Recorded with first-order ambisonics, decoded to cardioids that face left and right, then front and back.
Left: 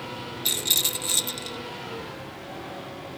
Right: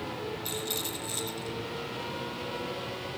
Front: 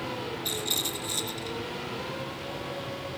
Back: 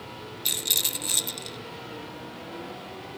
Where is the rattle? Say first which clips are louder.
Left 13 dB, back 5 dB; 140° left, 1.0 m.